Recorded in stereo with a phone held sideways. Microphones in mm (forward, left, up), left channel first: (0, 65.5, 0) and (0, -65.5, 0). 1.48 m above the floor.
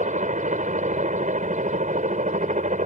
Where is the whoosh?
I don't hear a whoosh.